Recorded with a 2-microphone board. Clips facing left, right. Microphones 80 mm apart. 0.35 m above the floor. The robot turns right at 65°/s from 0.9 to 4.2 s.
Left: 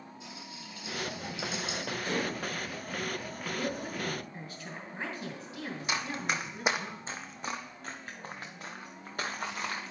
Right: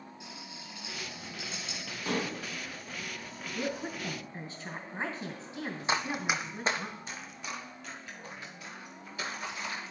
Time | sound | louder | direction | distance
0.2 | a rattle | left 1 dB | 80° right | 4.5 m
2.0 | dishes clattering | right 1 dB | 70° right (ahead or behind) | 1.9 m
3.5 | a woman speaking | right 1 dB | 60° right (ahead or behind) | 2.5 m
5.9 | running footsteps | right 3 dB | 35° right (ahead or behind) | 0.6 m